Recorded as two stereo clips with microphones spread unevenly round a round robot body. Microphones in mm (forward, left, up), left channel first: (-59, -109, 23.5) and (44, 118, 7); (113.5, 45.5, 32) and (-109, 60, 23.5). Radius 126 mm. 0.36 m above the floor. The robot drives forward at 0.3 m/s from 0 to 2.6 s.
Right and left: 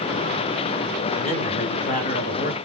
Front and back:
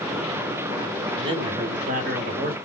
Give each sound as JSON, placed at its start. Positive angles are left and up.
{"t": 1.2, "sound": "a man speaking", "azimuth_deg": -145, "distance_m": 0.9}